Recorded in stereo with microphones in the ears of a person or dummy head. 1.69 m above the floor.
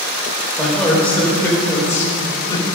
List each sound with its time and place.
0.6 s a man speaking: 5° left (ahead or behind), 5 m; by 2.7 s 25° left (ahead or behind), 5 m